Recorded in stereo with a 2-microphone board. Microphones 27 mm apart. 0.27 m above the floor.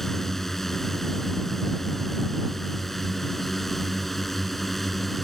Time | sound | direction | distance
0.0 | a drone | 10° left (ahead or behind) | ?